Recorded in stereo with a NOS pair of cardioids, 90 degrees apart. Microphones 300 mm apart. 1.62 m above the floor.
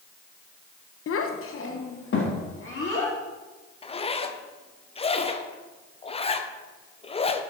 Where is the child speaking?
50° left, 1.2 m; by 3.1 s 40° left, 4.5 m.